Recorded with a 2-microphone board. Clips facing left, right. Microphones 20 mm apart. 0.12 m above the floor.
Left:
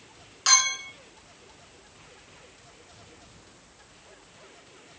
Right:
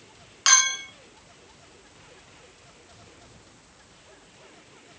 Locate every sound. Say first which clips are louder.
0.5 s a clink: right 2 dB; 30° right (ahead or behind), 0.8 m